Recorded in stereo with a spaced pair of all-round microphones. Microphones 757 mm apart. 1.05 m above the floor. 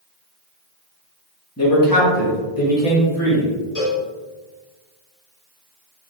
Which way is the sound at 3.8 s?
55° left (ahead or behind).